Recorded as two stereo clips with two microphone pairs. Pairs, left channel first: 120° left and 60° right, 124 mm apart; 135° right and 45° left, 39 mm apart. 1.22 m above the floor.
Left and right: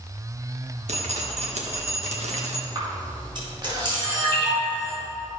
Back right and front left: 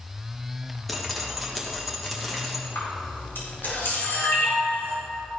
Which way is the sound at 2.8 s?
110° right.